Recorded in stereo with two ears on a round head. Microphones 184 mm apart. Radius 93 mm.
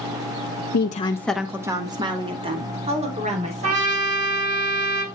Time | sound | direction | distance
0.7 | a woman speaking | 55° left (ahead or behind) | 0.7 m
3.6 | a trumpet | 90° right | 5.5 m